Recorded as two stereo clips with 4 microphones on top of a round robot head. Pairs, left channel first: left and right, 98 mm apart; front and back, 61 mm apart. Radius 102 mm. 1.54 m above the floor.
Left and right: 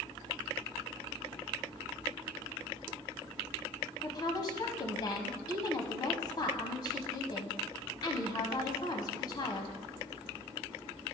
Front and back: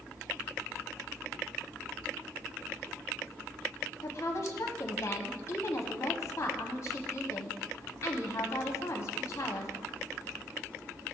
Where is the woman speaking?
45° left, 0.6 m.